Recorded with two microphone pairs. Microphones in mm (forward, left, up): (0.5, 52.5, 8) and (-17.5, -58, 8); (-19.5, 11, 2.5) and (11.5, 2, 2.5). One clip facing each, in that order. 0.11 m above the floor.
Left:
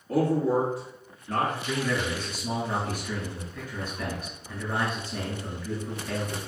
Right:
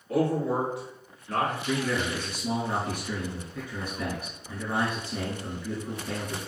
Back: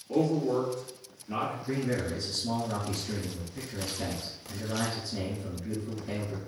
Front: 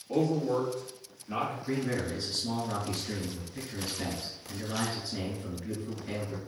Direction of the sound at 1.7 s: 35° right.